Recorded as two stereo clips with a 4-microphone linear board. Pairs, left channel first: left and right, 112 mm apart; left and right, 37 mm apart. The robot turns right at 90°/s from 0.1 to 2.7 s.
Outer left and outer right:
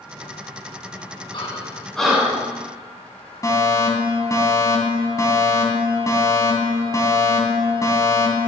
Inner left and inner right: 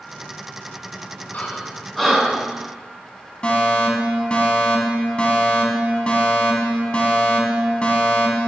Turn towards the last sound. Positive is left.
turn(degrees=30)  # may be behind; listen again after turning